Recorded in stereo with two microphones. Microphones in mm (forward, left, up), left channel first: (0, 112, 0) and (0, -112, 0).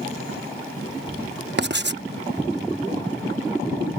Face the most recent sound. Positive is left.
turn(degrees=-50)  # may be behind; listen again after turning